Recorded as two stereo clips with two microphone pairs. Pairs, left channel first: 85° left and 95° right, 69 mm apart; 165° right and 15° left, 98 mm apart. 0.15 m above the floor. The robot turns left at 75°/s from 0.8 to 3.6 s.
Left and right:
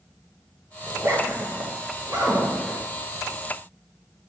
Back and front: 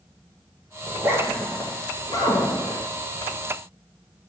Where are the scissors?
I don't hear scissors.